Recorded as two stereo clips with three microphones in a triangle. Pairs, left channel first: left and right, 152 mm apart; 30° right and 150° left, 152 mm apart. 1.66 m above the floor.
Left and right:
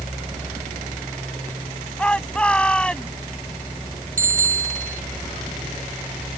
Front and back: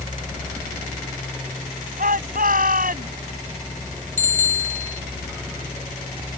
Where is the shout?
175° left.